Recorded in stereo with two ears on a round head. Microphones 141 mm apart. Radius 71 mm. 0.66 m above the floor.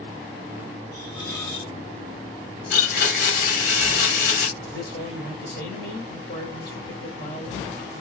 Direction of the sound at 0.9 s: 20° left (ahead or behind).